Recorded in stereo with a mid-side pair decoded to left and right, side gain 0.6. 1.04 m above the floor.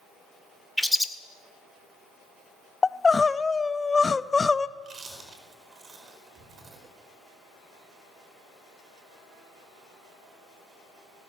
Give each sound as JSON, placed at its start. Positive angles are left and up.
{"t": 0.8, "sound": "a bird", "azimuth_deg": 5, "distance_m": 1.5}
{"t": 2.8, "sound": "crying", "azimuth_deg": 20, "distance_m": 0.6}
{"t": 4.8, "sound": "chewing", "azimuth_deg": -40, "distance_m": 5.0}